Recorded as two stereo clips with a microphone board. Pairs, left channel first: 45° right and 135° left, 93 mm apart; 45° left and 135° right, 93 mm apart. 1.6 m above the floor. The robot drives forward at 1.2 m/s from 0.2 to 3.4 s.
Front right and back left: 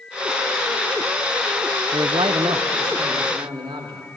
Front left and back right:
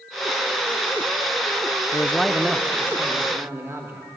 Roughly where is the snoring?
No snoring in this recording.